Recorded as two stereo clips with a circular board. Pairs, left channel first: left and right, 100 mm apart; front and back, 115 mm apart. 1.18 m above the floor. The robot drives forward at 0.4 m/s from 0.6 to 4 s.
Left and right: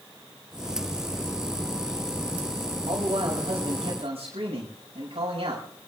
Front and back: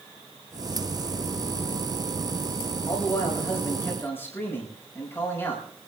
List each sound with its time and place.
2.9 s a man speaking: 65° right, 5.5 m; by 5.6 s 70° right, 5.5 m